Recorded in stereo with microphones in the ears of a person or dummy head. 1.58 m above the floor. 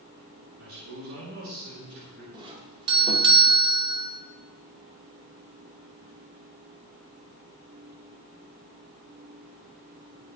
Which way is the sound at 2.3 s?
25° right (ahead or behind).